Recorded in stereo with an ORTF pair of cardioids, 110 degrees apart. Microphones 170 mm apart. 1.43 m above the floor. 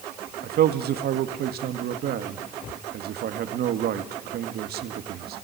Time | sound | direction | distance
0.4 | a man speaking | 60° right | 2 m